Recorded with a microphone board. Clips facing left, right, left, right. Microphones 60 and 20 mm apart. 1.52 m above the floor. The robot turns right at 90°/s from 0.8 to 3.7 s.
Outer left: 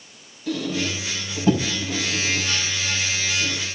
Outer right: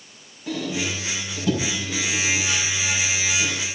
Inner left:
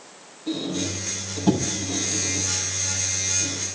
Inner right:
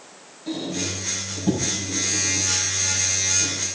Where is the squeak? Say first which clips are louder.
Outer left 1 dB, even; 25° right (ahead or behind), 5 m; by 3.5 s 40° right (ahead or behind), 5 m.